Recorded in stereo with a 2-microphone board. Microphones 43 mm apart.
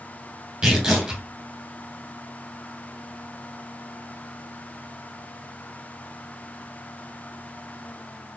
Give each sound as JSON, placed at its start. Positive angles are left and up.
{"t": 0.6, "sound": "tearing paper", "side_deg": -25, "distance_m": 2.0}